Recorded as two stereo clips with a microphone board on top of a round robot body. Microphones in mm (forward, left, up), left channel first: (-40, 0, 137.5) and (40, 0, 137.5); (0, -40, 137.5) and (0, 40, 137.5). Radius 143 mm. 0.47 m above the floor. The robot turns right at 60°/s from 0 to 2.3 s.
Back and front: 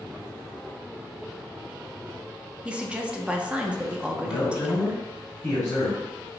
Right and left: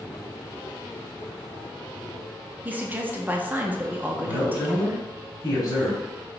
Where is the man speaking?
125° right, 1.7 m.